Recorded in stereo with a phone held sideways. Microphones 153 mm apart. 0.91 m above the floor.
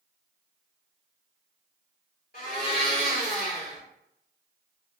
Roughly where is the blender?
Left.